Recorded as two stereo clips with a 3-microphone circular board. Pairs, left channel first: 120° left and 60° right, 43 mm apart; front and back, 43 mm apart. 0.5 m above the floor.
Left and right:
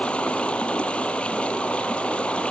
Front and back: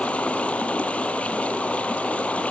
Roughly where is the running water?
Ahead left.